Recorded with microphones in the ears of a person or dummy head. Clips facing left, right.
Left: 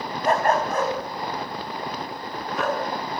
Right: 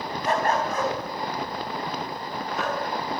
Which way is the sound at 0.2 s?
45° left (ahead or behind).